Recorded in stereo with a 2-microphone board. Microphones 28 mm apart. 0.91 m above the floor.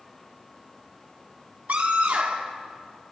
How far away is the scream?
About 1.5 m.